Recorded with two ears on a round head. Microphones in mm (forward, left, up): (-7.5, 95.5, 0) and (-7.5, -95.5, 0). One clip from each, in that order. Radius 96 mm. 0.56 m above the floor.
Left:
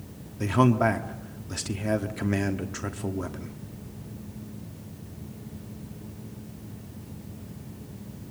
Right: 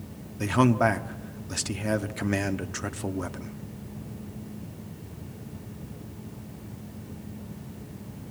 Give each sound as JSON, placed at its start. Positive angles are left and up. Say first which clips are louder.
{"t": 0.4, "sound": "a man speaking", "louder": "even", "side_deg": -15, "distance_m": 1.1}